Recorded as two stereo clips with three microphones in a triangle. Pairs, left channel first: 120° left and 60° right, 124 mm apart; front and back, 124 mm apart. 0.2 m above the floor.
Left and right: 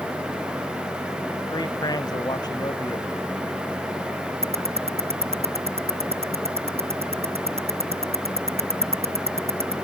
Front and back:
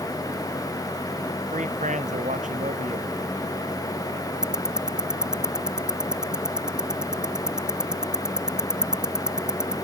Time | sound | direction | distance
1.5 | a man speaking | 175° left | ?
4.4 | ticking | 95° right | ?